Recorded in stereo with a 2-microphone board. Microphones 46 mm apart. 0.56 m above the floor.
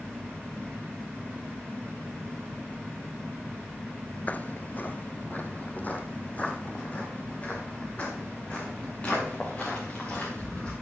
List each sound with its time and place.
4.3 s footsteps: 35° left (ahead or behind), 0.6 m; by 10.7 s 25° left (ahead or behind), 6 m